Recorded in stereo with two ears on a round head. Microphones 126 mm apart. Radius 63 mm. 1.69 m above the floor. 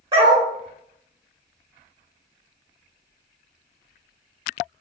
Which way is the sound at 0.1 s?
40° right (ahead or behind).